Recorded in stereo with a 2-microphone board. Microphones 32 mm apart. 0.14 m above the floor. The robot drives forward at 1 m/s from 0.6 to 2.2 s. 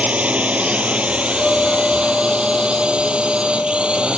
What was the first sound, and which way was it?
A drone, 45° right (ahead or behind).